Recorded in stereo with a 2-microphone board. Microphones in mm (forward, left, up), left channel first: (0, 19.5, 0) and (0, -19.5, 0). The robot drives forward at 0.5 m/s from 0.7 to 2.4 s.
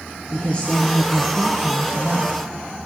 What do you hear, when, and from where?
0.3 s a woman speaking: 25° left (ahead or behind), 1.9 m; by 2.3 s 20° left (ahead or behind), 2.5 m